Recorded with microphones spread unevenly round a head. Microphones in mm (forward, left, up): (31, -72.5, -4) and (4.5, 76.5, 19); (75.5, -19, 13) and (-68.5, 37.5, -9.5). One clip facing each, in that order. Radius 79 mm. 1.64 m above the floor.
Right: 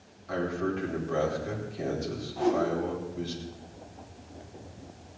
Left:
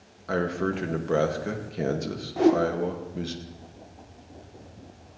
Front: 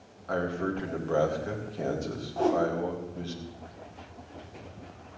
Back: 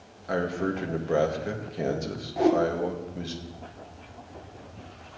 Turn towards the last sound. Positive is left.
turn(degrees=85)